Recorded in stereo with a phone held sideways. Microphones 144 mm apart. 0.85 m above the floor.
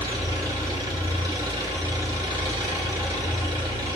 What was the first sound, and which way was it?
An engine running, 25° right (ahead or behind).